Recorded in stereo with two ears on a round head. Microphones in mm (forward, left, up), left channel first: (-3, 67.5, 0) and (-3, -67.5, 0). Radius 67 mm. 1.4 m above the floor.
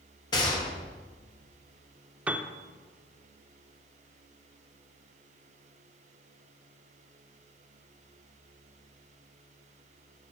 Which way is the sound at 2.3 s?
10° right (ahead or behind).